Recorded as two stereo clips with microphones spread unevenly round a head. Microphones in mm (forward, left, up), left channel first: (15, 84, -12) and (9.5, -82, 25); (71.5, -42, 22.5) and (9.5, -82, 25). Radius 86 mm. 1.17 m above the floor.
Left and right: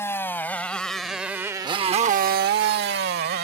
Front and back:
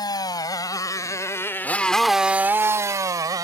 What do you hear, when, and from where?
0.0 s a motorcycle: 10° left; by 3.4 s 120° right